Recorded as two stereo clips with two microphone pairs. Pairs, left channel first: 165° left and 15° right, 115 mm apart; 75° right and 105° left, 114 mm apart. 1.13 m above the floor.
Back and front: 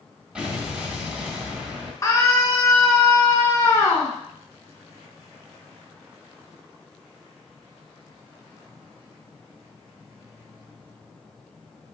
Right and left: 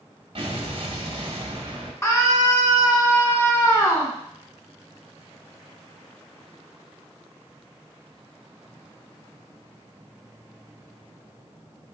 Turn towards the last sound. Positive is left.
turn(degrees=-140)